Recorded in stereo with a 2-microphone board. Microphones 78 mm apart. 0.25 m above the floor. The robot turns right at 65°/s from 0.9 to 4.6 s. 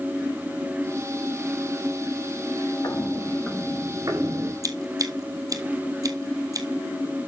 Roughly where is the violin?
No violin in this recording.